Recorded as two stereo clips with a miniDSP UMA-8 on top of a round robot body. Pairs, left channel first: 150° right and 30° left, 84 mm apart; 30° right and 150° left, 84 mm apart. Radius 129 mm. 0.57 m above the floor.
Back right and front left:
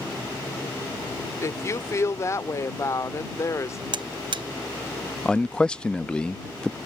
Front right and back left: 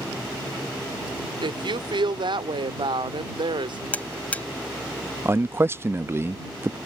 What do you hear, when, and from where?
1.4 s a woman speaking: 160° left
3.9 s a buzzer: 45° left
5.2 s a man speaking: 140° left